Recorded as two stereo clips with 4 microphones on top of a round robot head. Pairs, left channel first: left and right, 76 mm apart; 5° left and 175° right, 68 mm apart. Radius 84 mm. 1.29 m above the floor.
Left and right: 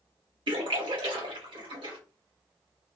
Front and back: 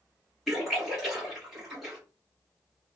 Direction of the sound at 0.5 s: 90° right.